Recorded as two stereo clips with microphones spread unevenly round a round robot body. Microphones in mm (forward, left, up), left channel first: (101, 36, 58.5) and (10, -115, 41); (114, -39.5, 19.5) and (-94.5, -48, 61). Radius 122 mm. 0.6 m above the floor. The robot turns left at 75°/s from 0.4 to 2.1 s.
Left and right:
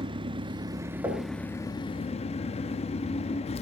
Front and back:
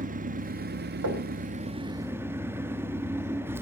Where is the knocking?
165° left, 2.5 m; by 1.3 s 145° left, 2.5 m.